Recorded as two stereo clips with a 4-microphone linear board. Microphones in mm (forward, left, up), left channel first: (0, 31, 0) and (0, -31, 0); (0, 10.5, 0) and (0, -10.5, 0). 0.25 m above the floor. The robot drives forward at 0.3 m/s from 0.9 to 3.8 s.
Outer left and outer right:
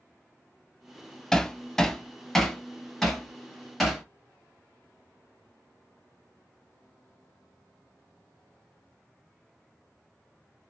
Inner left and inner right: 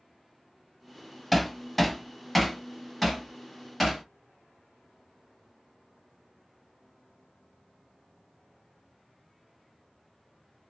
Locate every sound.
1.3 s hammering: 10° left (ahead or behind), 0.5 m; by 4.0 s 5° left (ahead or behind), 1.2 m